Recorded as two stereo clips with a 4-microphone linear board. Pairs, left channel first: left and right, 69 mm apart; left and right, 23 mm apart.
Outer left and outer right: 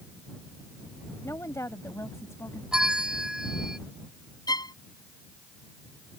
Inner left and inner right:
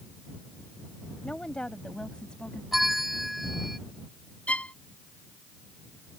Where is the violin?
85° left.